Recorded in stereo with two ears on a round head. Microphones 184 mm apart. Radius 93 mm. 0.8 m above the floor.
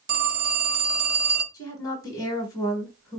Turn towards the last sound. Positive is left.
turn(degrees=15)  # may be behind; listen again after turning